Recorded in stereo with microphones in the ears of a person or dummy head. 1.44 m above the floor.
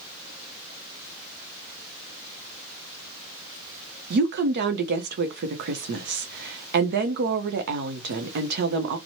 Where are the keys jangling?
I don't hear keys jangling.